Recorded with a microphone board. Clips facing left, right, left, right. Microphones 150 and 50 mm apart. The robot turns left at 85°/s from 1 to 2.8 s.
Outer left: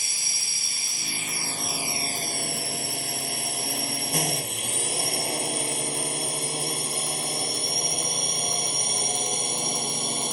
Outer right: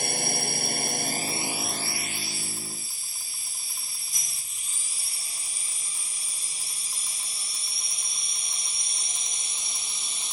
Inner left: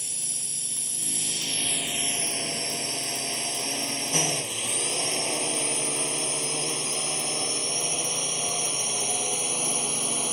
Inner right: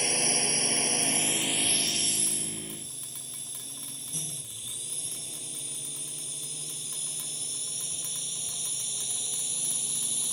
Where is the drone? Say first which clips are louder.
Outer right 14 dB, inner right 13 dB; 55° right (ahead or behind); by 10.3 s 55° left (ahead or behind).